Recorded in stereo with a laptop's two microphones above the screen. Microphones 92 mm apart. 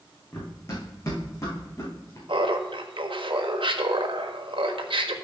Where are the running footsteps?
25° left (ahead or behind), 2.5 m; by 2.2 s 35° left (ahead or behind), 3.5 m.